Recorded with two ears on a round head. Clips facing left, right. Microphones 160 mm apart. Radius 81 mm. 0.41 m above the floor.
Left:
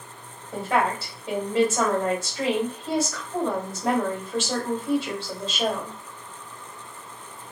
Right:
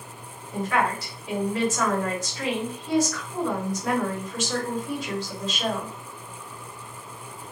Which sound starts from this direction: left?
A woman speaking, at 0.5 s.